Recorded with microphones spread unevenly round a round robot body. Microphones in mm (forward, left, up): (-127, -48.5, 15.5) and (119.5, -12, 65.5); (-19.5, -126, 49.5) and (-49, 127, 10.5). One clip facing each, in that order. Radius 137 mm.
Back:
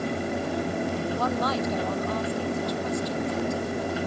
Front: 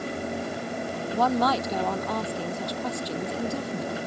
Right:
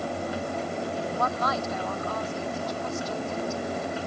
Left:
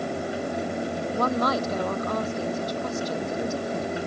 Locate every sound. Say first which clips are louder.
1.1 s a woman speaking: front 2 dB, left 5 dB; 40° left